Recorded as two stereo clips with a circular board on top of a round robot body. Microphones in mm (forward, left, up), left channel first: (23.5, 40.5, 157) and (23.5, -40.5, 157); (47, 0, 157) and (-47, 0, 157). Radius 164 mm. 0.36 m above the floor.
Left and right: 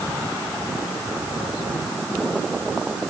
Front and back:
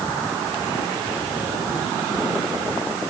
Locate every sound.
Only background noise.